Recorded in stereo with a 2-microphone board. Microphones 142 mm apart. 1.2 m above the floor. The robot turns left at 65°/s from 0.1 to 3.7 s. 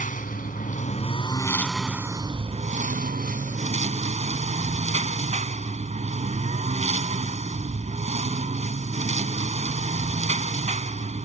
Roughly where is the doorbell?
I don't hear a doorbell.